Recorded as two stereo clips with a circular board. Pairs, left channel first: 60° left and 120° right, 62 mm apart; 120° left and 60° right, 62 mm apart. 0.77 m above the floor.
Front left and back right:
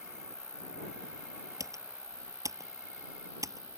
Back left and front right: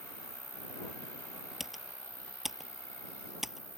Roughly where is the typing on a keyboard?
Behind right.